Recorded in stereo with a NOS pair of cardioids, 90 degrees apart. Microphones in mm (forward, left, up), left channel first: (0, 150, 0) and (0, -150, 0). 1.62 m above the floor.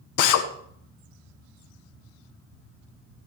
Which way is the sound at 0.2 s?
70° left.